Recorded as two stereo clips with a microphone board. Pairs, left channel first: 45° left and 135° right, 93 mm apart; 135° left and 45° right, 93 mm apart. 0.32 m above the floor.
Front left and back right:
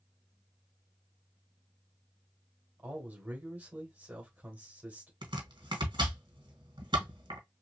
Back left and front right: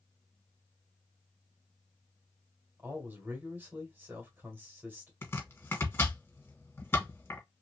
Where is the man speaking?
85° right, 1.7 m.